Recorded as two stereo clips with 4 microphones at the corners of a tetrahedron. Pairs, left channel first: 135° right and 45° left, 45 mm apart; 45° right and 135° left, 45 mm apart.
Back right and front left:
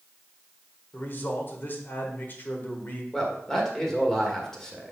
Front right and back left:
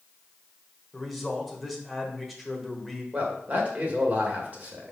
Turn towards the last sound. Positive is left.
turn(degrees=155)